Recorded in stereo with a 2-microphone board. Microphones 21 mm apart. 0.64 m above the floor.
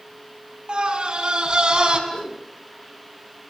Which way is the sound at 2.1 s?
55° left (ahead or behind).